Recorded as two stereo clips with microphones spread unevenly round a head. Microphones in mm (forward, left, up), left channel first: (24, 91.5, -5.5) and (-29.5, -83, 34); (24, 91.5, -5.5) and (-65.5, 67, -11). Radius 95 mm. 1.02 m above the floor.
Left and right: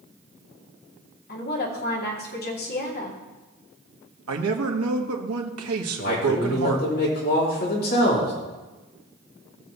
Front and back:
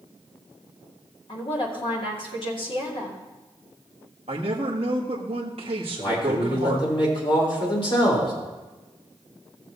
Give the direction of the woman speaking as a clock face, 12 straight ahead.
11 o'clock.